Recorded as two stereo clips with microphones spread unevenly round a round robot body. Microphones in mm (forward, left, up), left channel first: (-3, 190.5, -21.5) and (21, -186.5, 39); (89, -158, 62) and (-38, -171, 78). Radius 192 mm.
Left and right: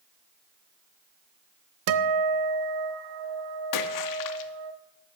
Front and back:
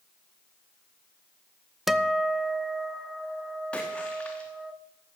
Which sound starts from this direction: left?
A splash, at 3.7 s.